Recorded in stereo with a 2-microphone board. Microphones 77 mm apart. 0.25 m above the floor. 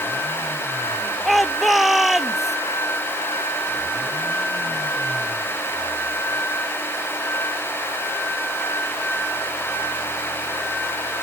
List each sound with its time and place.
1.2 s a shout: centre (ahead or behind); by 2.6 s 5° right (ahead or behind)